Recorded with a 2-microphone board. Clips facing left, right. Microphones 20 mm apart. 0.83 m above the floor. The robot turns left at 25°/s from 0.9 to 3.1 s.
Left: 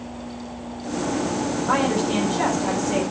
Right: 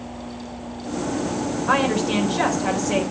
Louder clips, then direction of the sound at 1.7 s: Right 2 dB; 75° right.